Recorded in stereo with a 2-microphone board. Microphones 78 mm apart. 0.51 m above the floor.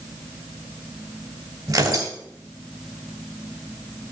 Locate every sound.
1.7 s tearing paper: 55° right (ahead or behind), 2.5 m